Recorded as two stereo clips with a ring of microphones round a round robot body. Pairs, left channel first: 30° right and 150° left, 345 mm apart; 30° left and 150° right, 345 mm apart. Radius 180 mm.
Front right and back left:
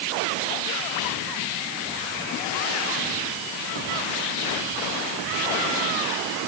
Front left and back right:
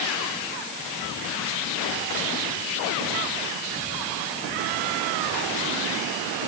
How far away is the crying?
I don't hear crying.